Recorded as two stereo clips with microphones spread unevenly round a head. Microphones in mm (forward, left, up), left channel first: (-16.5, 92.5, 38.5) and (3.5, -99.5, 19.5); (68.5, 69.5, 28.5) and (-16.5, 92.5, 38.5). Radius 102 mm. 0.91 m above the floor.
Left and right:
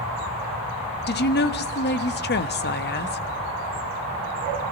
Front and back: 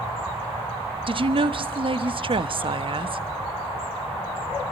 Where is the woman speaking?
135° left, 1.2 m.